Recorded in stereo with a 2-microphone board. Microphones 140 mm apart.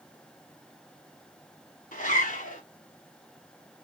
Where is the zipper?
70° left (ahead or behind), 1.3 m.